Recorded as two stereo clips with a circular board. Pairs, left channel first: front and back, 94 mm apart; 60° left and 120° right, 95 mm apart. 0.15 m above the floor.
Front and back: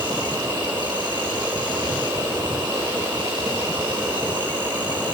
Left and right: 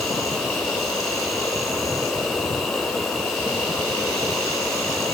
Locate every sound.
0.0 s an insect: 145° left, 5.5 m